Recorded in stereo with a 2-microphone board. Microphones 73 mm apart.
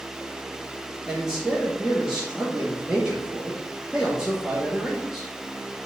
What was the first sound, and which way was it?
A man speaking, 5° right (ahead or behind).